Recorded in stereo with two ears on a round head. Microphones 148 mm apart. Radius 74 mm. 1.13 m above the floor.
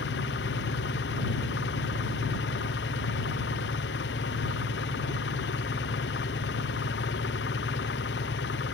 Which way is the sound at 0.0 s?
80° left.